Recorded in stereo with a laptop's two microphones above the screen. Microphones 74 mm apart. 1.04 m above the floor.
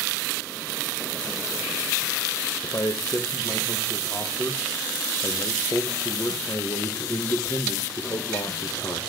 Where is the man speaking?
55° left (ahead or behind), 0.8 m.